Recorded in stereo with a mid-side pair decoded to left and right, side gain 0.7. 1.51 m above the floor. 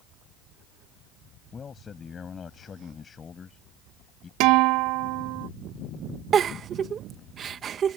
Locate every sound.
1.5 s a man speaking: 30° left
4.4 s a guitar: 65° right
6.3 s a giggle: 35° right